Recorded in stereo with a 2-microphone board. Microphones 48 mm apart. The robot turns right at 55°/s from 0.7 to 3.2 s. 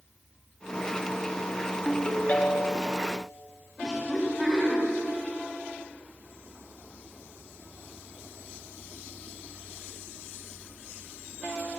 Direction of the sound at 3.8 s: 10° right (ahead or behind).